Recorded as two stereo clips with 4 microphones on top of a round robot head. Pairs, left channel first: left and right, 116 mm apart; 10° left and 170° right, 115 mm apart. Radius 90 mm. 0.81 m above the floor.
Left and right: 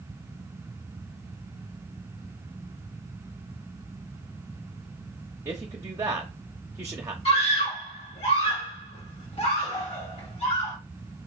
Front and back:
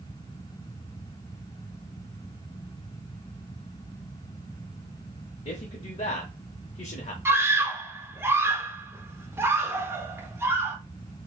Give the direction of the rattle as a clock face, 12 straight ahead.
No rattle in this recording.